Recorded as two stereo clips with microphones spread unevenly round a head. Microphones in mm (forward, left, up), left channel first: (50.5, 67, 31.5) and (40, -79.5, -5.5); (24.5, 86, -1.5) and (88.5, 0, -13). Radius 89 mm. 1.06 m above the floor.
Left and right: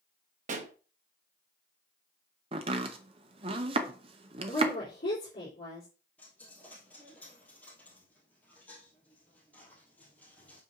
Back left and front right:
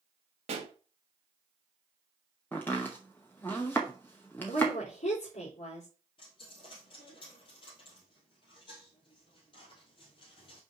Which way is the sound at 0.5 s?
75° right.